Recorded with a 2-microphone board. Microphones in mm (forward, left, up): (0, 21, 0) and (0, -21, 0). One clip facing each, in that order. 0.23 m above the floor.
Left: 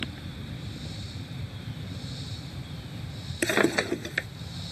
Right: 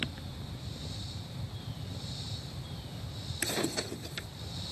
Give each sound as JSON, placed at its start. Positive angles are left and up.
{"t": 0.0, "sound": "an aircraft", "side_deg": 50}
{"t": 3.4, "sound": "a drawer", "side_deg": 65}